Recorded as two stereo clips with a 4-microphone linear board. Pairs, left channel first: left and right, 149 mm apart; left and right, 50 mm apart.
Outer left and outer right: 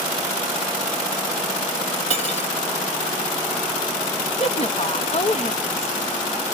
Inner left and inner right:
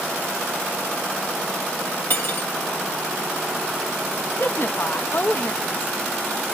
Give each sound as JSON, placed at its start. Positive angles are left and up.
{"t": 2.1, "sound": "cutlery clinking", "side_deg": 45, "distance_m": 1.4}
{"t": 4.4, "sound": "a woman speaking", "side_deg": 45, "distance_m": 0.9}